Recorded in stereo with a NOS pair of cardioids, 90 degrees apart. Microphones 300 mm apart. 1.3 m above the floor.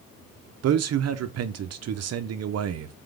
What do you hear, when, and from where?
0.6 s a man speaking: 60° right, 0.8 m